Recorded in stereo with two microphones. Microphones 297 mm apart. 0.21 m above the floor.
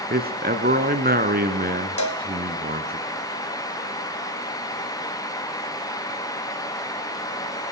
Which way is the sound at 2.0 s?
70° left (ahead or behind).